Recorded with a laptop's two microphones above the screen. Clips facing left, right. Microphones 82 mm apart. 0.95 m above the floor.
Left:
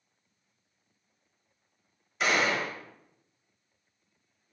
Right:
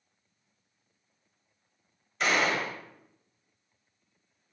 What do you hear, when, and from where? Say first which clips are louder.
2.2 s a gunshot: even; 5° left (ahead or behind), 0.7 m